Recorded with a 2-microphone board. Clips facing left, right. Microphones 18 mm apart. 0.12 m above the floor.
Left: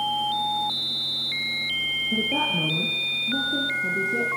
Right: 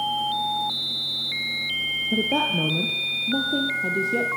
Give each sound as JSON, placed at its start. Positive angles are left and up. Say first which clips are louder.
{"t": 2.1, "sound": "a woman speaking", "louder": "right 3 dB", "side_deg": -55, "distance_m": 3.5}